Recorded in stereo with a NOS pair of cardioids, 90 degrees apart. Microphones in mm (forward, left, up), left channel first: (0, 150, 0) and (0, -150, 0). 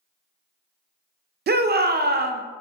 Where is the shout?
35° right, 0.5 m.